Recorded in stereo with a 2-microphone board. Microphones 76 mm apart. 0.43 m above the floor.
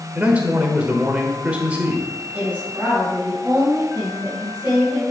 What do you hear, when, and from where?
0.1 s a man speaking: 20° right (ahead or behind), 1.2 m
2.3 s a woman speaking: 25° right (ahead or behind), 2.5 m